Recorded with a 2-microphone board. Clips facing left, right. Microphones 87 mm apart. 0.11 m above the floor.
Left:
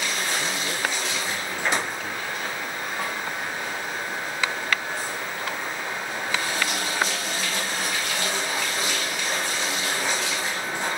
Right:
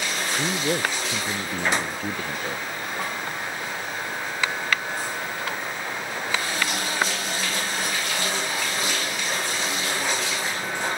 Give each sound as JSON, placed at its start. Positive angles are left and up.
{"t": 0.3, "sound": "a man speaking", "side_deg": -45}